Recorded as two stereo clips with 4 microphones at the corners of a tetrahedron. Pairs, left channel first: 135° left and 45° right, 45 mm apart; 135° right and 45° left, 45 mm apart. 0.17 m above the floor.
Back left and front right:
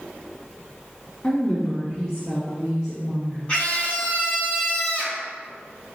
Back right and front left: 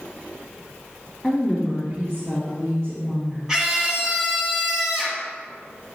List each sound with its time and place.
1.2 s a woman speaking: 110° left, 1.5 m; by 3.4 s 55° left, 3 m
3.5 s a scream: 110° left, 1.8 m